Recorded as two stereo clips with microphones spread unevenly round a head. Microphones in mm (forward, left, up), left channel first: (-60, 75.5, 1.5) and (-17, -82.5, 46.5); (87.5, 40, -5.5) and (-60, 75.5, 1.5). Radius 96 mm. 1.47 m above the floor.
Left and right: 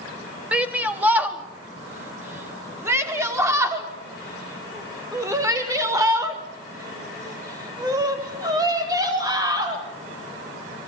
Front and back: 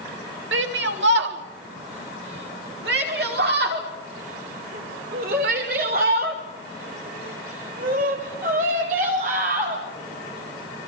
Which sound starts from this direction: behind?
A shout, at 0.5 s.